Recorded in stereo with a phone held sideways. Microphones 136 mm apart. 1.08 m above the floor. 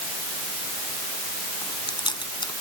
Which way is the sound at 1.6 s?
35° left (ahead or behind).